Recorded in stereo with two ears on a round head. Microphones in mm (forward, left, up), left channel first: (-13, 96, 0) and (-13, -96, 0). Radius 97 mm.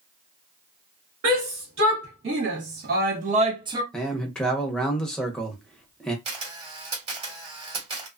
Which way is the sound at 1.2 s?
75° right (ahead or behind).